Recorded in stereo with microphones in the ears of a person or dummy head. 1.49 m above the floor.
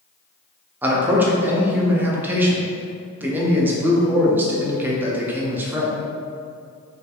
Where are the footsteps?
No footsteps in this recording.